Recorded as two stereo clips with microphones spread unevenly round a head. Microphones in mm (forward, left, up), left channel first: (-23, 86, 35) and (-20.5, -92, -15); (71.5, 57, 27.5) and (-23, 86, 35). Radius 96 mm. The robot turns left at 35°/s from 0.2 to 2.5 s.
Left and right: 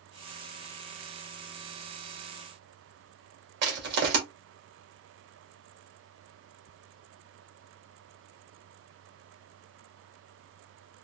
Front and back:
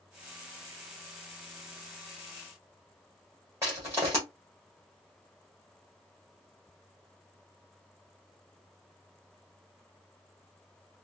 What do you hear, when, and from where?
3.6 s crushing: 120° right, 1.6 m